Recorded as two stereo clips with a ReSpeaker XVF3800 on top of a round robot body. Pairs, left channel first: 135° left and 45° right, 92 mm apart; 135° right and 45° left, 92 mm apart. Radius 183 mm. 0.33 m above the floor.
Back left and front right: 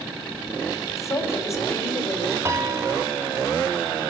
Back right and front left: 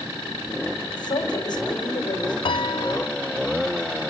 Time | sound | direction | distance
0.9 | a woman speaking | 170° right | 3 m
2.5 | a piano | 105° right | 0.7 m